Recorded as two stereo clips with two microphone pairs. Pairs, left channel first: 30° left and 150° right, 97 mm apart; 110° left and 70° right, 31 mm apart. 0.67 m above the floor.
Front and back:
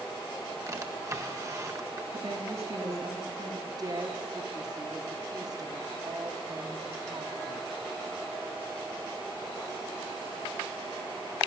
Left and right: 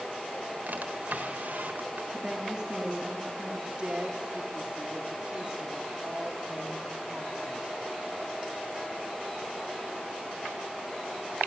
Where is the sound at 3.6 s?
115° right, 1.8 m.